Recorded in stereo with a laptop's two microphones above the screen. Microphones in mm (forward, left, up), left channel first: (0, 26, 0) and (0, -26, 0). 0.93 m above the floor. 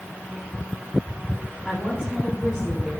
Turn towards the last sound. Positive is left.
turn(degrees=5)  # may be behind; listen again after turning